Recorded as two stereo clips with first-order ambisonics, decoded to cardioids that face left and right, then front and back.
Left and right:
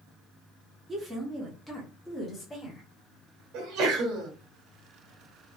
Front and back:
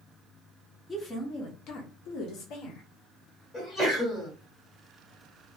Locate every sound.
0.9 s a woman speaking: 60° right, 0.8 m; by 2.8 s 10° left, 1.6 m
3.5 s a sneeze: 80° right, 1.6 m